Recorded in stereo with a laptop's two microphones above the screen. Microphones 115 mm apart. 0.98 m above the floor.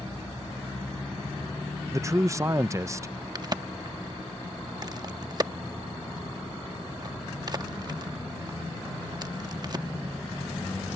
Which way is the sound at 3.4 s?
35° right (ahead or behind).